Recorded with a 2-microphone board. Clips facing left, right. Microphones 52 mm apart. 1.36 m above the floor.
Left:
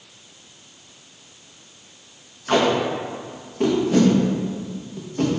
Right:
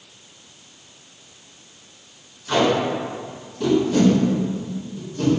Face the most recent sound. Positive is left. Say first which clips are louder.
# even
turn(degrees=45)  # may be behind; listen again after turning